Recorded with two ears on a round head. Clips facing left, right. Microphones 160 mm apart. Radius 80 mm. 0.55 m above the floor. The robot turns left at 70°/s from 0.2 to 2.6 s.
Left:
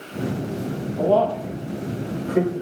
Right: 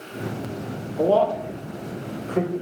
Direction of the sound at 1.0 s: 15° right (ahead or behind).